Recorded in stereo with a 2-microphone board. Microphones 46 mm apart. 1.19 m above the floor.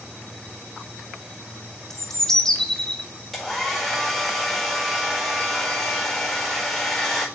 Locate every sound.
1.9 s a bird: 10° left (ahead or behind), 1.1 m
3.3 s a hair dryer: 5° left (ahead or behind), 4.5 m